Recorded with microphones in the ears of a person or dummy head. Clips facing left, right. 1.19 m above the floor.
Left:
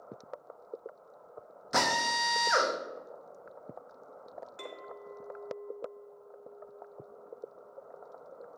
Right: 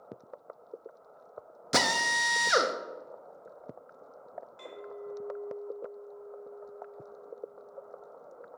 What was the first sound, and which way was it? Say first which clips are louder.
A drill: right 1 dB; 40° right (ahead or behind).